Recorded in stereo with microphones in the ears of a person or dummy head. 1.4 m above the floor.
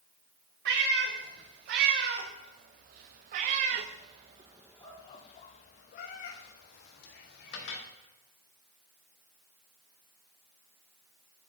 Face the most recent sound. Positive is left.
turn(degrees=65)  # may be behind; listen again after turning